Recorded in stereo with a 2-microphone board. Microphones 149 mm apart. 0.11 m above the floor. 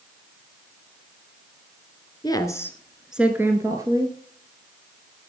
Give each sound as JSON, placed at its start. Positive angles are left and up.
{"t": 2.2, "sound": "a woman speaking", "side_deg": 25, "distance_m": 1.3}